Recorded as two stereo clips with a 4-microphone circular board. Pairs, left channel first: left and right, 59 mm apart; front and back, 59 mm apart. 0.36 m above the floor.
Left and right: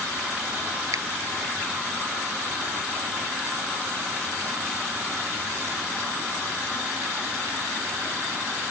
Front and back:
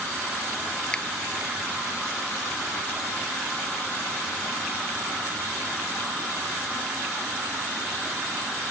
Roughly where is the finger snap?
Right.